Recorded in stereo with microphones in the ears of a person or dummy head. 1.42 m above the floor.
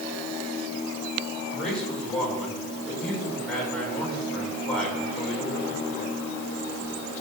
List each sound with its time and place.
1.5 s a man speaking: centre (ahead or behind), 6 m